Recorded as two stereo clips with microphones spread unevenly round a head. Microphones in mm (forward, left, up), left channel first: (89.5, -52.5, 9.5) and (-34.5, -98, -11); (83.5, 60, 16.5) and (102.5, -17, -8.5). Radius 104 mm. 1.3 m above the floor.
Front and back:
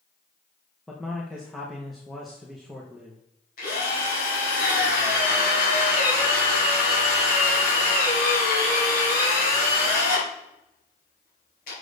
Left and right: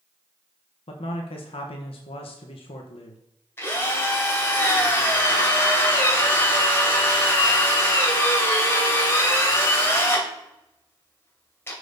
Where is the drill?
45° left, 3 m.